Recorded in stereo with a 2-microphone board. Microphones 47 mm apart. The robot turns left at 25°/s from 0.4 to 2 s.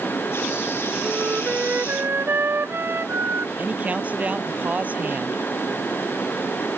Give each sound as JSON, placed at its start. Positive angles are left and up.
{"t": 1.0, "sound": "a flute", "side_deg": -30}
{"t": 3.6, "sound": "a man speaking", "side_deg": -30}